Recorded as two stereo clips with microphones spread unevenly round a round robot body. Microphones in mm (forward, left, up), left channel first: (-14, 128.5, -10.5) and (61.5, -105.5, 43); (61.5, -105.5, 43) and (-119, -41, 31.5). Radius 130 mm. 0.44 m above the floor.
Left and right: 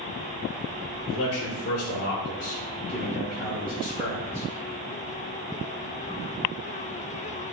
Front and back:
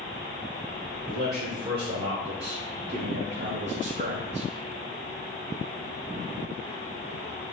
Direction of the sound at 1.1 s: 90° left.